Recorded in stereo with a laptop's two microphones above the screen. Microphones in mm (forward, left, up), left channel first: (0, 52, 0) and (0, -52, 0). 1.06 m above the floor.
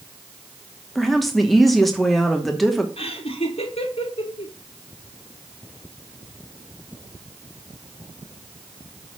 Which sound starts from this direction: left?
Laughter, at 3.0 s.